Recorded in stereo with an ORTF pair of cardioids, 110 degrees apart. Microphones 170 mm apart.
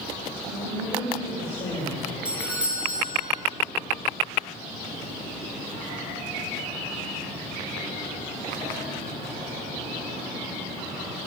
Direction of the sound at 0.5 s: 40° left.